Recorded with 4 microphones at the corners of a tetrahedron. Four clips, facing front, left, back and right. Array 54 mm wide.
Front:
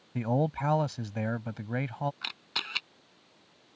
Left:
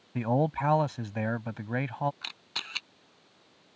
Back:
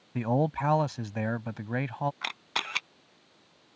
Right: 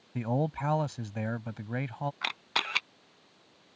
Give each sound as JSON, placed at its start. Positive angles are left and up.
{"t": 0.1, "sound": "a man speaking", "azimuth_deg": 115}
{"t": 2.2, "sound": "a camera shutter", "azimuth_deg": -125}